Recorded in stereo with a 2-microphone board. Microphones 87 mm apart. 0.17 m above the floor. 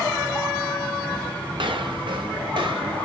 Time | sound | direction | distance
1.6 | footsteps | 70° right (ahead or behind) | 2.5 m